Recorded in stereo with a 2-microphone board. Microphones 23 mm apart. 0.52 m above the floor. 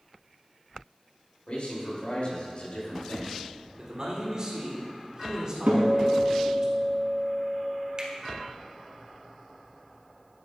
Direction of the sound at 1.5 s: 55° left (ahead or behind).